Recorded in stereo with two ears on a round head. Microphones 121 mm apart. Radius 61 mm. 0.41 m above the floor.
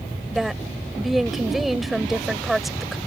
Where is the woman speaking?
Centre (ahead or behind).